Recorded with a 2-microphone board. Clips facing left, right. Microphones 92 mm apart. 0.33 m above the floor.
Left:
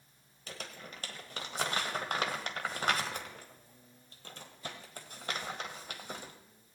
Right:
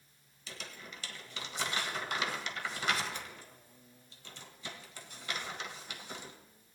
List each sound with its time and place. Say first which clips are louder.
0.5 s crumpling: left 2 dB; 45° left (ahead or behind), 1.5 m